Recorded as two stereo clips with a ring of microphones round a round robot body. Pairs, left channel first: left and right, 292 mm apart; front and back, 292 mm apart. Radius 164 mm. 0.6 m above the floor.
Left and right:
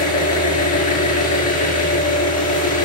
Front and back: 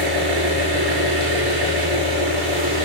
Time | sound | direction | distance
0.0 | an engine running | 125° left | 9.5 m